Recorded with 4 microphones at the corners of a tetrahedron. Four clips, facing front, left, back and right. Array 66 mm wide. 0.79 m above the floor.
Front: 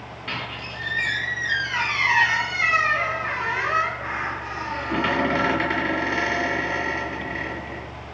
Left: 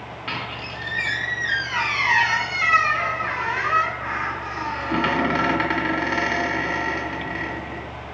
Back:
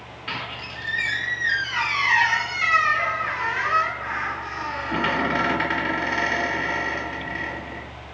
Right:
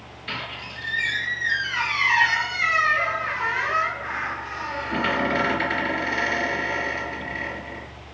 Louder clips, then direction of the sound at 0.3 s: Left 2 dB, even; 90° left.